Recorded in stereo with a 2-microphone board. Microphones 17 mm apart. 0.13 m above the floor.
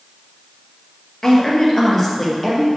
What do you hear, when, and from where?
1.2 s a woman speaking: 30° left (ahead or behind), 2.5 m; by 2.7 s 10° left (ahead or behind), 3.5 m